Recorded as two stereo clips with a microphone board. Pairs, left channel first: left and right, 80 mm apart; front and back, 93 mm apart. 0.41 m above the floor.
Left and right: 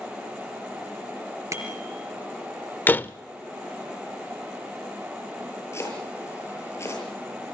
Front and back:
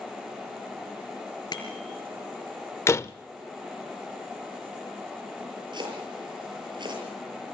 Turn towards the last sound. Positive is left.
turn(degrees=145)